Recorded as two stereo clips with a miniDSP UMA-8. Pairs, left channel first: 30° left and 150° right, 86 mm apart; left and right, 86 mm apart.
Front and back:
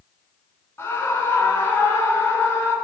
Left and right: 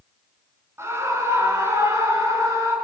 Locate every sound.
0.8 s a scream: 30° right, 6 m; by 2.7 s 35° right, 7 m